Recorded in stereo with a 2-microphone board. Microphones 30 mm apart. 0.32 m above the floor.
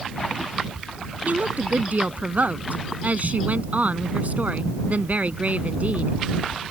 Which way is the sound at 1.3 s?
55° right (ahead or behind).